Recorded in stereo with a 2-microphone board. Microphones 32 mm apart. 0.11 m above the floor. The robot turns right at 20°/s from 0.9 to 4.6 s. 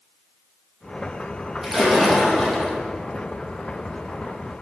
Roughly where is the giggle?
No giggle in this recording.